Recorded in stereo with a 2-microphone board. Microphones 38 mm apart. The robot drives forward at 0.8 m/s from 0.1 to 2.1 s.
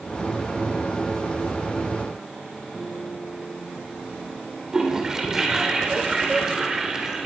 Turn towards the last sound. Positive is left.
turn(degrees=-15)  # may be behind; listen again after turning